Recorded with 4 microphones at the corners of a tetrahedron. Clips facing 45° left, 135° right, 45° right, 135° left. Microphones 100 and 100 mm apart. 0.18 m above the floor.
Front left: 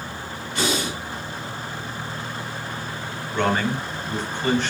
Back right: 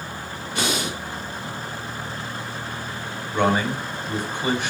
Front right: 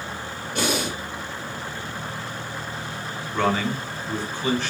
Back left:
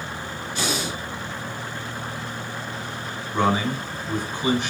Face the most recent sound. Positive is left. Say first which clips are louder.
# back right 1 dB, back left 1 dB
turn(degrees=170)